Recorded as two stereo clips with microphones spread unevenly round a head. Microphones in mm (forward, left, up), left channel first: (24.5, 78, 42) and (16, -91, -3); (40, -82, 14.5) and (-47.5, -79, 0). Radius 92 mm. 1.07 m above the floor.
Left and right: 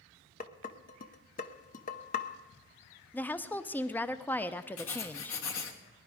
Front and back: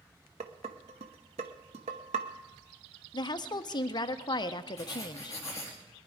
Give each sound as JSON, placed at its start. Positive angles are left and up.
{"t": 0.4, "sound": "dishes clattering", "azimuth_deg": 140, "distance_m": 0.6}
{"t": 3.1, "sound": "a woman speaking", "azimuth_deg": -10, "distance_m": 0.6}
{"t": 4.8, "sound": "writing", "azimuth_deg": 75, "distance_m": 1.4}